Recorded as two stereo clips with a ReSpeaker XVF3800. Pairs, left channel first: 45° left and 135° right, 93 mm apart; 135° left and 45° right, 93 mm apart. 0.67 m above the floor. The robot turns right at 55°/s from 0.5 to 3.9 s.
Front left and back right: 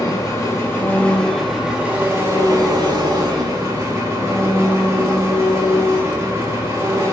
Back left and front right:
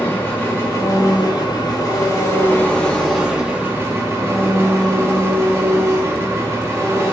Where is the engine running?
85° left, 0.8 m; by 7.1 s 90° right, 0.8 m.